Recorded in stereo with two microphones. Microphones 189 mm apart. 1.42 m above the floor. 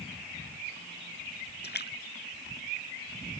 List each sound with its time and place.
1.6 s a splash: 60° left (ahead or behind)